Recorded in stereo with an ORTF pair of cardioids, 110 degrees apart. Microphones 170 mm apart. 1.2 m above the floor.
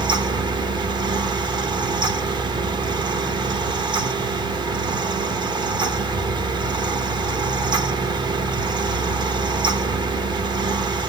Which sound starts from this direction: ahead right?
A fan, at 0.0 s.